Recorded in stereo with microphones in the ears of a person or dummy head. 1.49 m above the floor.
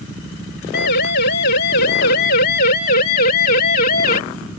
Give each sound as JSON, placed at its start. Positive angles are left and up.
{"t": 0.7, "sound": "a siren", "side_deg": 65}